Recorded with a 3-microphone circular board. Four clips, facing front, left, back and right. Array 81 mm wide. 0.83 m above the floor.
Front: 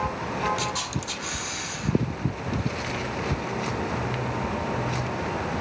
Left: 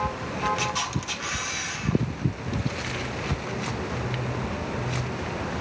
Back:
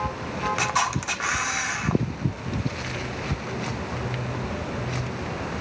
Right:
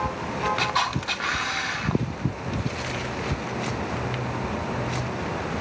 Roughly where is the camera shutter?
Behind right.